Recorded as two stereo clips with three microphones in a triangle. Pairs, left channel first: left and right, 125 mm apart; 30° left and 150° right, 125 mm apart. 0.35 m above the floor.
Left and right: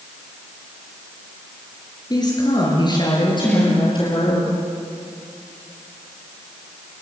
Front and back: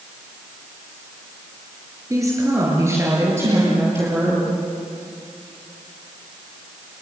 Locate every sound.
2.1 s a woman speaking: 145° left, 6.5 m; by 4.4 s 140° left, 9.5 m
3.4 s a snare drum: 160° left, 8.5 m